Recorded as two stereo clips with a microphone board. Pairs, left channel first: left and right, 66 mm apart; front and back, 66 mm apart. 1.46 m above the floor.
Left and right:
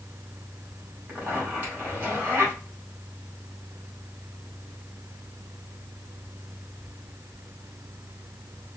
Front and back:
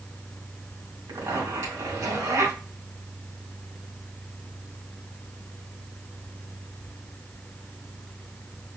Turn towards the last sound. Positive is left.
turn(degrees=-155)